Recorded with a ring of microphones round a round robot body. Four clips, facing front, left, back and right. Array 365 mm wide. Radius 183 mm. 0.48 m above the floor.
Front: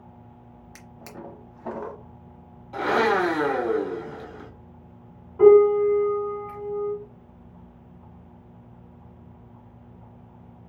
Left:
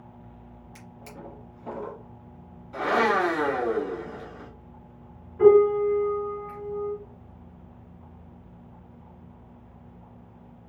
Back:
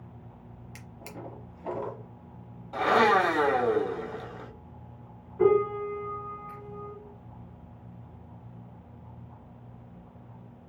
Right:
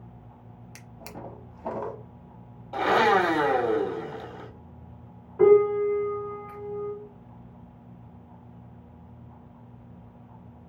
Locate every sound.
0.8 s a drawer: 75° right, 1.0 m
2.7 s a blender: 95° right, 2 m
5.4 s a piano: 50° right, 2.0 m